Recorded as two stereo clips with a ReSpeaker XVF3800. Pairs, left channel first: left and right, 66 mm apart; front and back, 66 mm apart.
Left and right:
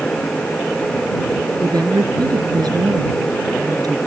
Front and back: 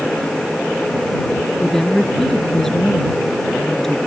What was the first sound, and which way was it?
A woman speaking, 85° right.